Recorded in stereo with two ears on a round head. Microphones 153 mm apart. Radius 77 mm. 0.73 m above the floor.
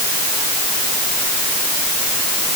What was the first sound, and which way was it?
Only background noise.